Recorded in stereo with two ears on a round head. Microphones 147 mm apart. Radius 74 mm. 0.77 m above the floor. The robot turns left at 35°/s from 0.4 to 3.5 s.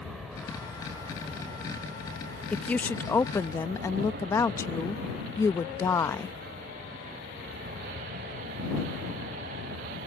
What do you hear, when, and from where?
0.0 s an aircraft: centre (ahead or behind); by 10.1 s 55° right (ahead or behind)
2.5 s a woman speaking: 5° left (ahead or behind); by 6.3 s 15° left (ahead or behind)